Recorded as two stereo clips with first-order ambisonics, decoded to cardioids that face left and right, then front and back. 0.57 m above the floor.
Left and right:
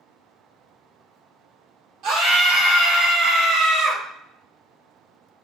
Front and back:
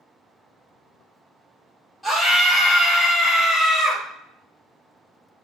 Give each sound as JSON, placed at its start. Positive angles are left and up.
{"t": 2.0, "sound": "a scream", "azimuth_deg": -80, "distance_m": 1.1}